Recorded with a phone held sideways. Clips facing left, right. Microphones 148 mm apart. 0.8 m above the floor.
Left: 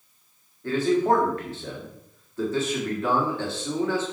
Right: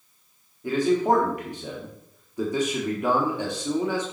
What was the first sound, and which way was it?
A man speaking, 15° right (ahead or behind).